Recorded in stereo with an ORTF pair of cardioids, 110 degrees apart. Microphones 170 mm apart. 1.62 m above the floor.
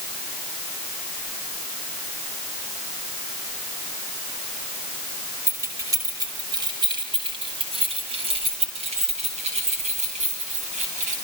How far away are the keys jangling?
About 6.5 m.